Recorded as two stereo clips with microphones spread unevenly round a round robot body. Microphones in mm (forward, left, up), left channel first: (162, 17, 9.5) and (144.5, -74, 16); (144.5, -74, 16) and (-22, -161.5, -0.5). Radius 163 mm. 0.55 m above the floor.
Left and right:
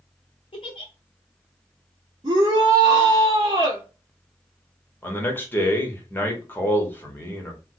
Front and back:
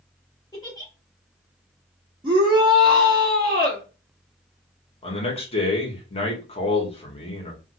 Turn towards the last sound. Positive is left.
turn(degrees=50)